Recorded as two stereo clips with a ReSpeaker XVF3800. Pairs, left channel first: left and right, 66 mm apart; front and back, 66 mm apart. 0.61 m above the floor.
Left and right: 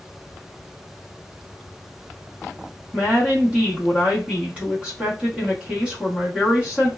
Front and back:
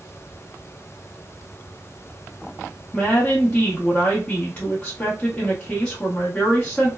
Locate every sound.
2.9 s a woman speaking: 40° right, 0.8 m